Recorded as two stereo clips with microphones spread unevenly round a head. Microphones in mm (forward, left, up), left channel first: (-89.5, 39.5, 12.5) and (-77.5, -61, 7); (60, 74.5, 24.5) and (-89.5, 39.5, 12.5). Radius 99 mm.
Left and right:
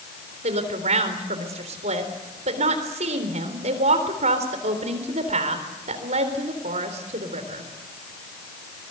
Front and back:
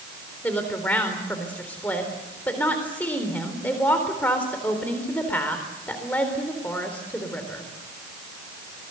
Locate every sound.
0.4 s a woman speaking: 70° right, 4 m